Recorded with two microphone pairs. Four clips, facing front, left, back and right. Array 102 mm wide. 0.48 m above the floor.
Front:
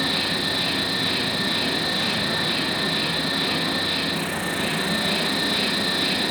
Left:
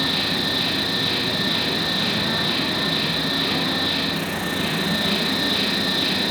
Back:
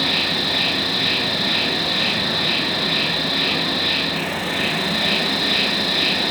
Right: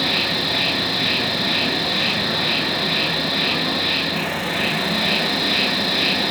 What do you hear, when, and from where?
0.0 s an insect: 140° right, 1.3 m